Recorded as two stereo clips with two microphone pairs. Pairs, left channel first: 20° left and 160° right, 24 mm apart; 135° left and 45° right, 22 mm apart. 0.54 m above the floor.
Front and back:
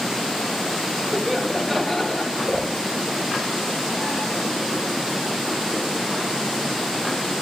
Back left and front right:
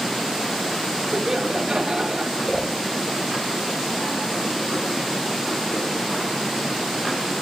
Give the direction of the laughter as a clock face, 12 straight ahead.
3 o'clock.